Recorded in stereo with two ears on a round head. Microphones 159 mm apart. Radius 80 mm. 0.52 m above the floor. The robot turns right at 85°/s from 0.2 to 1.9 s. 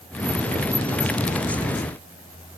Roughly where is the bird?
No bird in this recording.